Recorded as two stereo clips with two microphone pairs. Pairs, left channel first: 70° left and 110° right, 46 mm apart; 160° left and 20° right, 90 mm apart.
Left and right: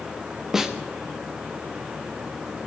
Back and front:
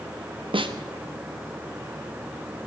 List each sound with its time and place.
0.5 s a snare drum: 35° right, 1.1 m